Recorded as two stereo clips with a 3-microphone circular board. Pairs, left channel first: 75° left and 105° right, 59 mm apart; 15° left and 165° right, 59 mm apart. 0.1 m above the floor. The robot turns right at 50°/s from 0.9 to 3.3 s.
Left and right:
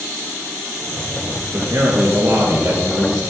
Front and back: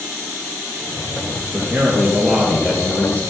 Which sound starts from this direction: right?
A man speaking, at 1.5 s.